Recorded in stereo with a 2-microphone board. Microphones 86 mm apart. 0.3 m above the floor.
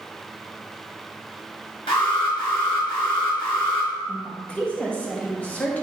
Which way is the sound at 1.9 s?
75° left (ahead or behind).